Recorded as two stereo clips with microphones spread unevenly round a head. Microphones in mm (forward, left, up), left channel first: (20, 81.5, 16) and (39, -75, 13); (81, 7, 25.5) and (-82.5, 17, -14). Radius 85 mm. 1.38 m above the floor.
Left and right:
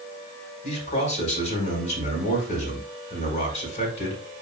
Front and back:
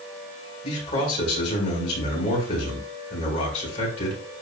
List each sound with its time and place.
0.6 s a man speaking: 50° left, 4.5 m